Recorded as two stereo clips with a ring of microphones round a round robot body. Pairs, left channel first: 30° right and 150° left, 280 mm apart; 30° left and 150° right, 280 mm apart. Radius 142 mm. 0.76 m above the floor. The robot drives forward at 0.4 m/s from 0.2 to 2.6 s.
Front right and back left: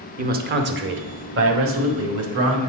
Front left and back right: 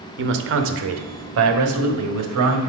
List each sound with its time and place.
0.2 s a man speaking: 165° right, 0.7 m; by 2.7 s 175° right, 1.5 m